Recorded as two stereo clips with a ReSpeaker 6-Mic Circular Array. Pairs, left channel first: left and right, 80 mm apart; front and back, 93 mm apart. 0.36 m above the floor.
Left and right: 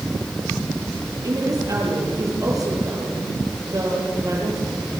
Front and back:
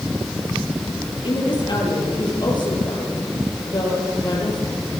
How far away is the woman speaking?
About 8.5 m.